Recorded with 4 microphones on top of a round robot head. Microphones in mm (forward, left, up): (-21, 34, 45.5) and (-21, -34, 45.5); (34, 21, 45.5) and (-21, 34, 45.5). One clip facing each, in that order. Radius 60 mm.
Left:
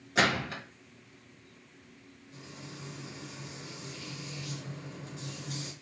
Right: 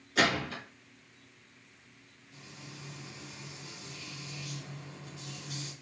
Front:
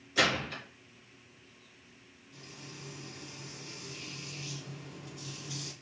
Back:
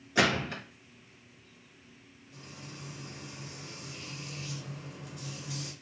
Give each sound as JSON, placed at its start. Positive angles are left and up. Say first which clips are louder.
{"t": 0.1, "sound": "a gunshot", "louder": "left 1 dB, back 2 dB", "azimuth_deg": 145, "distance_m": 2.5}
{"t": 2.3, "sound": "frying", "louder": "left 3 dB, back 2 dB", "azimuth_deg": 150, "distance_m": 2.0}